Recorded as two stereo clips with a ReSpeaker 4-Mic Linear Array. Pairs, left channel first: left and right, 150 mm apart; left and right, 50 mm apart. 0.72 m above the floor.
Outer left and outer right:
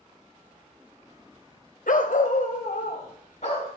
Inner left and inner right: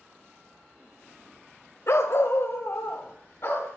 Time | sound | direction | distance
1.9 | a dog barking | 65° left (ahead or behind) | 0.9 m